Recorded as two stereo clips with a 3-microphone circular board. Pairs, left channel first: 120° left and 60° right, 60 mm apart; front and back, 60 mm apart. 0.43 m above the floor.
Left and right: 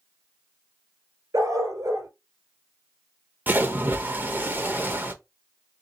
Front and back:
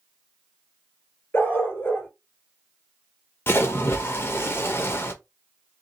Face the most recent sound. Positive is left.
turn(degrees=-20)